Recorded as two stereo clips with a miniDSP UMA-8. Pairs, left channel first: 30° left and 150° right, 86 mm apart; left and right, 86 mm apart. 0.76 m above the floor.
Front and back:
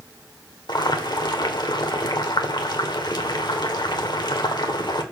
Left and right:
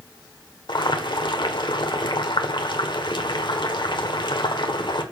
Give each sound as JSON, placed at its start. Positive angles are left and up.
{"t": 0.7, "sound": "boiling", "azimuth_deg": 65, "distance_m": 1.3}